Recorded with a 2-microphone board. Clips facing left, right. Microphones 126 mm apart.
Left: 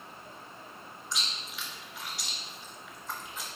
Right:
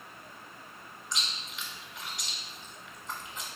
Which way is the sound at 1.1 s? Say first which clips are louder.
Even; 5° left (ahead or behind).